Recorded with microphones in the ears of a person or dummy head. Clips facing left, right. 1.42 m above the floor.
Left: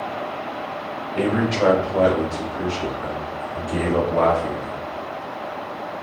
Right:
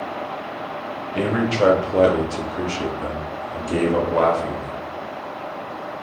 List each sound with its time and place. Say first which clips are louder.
1.1 s a man speaking: even; 25° right (ahead or behind), 0.9 m; by 4.8 s 65° right (ahead or behind), 1.9 m